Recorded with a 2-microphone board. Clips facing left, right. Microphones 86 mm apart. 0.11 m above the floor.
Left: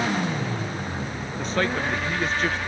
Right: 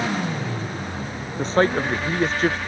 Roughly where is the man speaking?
Right.